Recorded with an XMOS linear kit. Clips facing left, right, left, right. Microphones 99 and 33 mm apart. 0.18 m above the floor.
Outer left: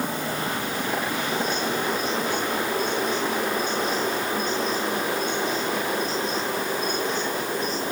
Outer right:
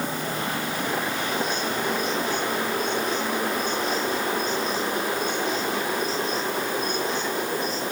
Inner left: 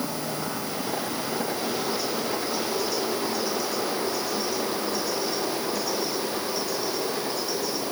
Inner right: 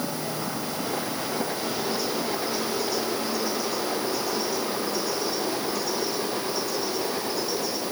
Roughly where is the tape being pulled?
I don't hear tape being pulled.